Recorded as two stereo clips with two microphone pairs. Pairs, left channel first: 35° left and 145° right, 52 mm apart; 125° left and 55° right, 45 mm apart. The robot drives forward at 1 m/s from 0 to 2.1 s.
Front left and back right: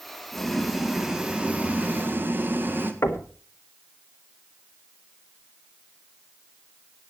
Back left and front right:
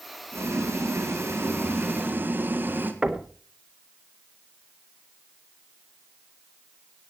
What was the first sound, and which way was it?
Boiling, 50° right.